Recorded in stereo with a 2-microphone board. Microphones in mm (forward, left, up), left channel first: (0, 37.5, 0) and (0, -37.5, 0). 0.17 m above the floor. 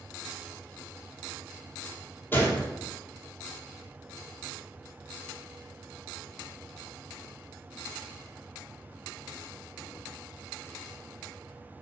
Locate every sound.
2.3 s a gunshot: 25° left (ahead or behind), 0.8 m